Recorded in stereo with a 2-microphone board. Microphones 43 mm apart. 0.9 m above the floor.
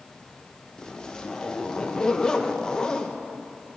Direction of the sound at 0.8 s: 15° left (ahead or behind).